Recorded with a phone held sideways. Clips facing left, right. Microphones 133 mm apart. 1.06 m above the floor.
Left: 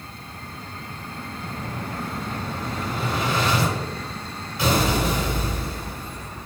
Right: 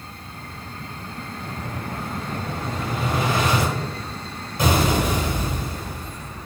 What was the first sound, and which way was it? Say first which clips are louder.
An explosion: even; 45° right (ahead or behind).